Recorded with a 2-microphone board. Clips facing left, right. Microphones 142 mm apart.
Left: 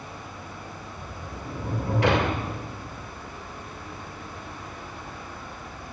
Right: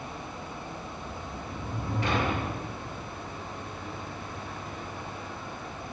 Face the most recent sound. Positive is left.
turn(degrees=85)